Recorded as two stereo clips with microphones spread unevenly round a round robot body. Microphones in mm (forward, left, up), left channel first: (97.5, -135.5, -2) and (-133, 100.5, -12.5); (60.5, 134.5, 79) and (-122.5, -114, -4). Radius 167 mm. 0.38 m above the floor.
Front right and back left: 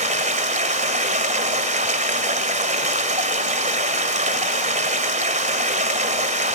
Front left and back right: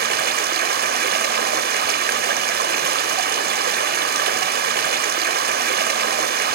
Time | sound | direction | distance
0.0 | running water | 165° right | 1.4 m